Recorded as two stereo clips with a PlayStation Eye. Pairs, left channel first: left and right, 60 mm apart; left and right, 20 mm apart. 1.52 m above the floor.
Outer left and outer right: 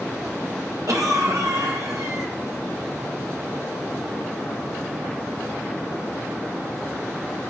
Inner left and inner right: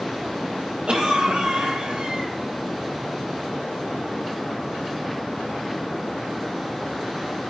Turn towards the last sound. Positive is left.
turn(degrees=-70)  # may be behind; listen again after turning